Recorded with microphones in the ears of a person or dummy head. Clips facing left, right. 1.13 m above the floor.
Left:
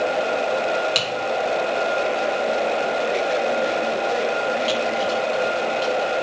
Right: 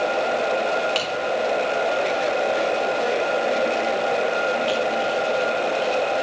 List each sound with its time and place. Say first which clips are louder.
0.9 s typing on a keyboard: even; 20° left (ahead or behind), 1.1 m